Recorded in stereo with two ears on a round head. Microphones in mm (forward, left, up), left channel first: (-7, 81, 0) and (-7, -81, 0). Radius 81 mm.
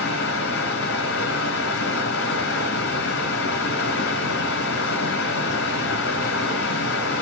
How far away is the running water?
About 2.5 m.